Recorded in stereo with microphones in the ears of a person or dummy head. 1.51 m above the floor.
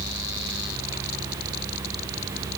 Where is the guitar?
No guitar in this recording.